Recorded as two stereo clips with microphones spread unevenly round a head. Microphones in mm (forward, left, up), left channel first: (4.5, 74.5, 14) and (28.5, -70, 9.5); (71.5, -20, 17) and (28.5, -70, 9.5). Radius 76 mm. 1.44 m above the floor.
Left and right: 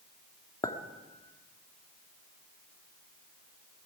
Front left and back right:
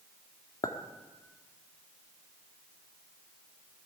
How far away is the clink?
About 1.7 m.